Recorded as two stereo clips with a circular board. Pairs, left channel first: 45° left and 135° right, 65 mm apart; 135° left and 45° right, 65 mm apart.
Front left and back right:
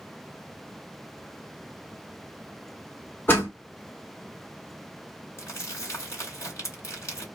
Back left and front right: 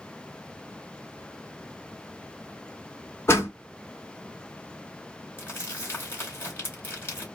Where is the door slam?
95° left, 1.1 m.